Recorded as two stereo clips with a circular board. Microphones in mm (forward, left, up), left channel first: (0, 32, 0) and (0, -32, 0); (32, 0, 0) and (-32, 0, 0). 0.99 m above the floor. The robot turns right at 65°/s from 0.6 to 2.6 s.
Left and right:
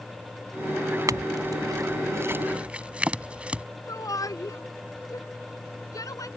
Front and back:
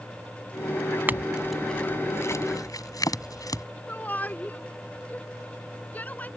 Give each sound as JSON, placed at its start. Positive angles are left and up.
{"t": 1.1, "sound": "a clink", "azimuth_deg": -120}
{"t": 3.9, "sound": "a shout", "azimuth_deg": 65}